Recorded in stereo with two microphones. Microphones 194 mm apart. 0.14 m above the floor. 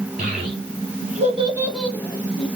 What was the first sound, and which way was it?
A child speaking, 50° right (ahead or behind).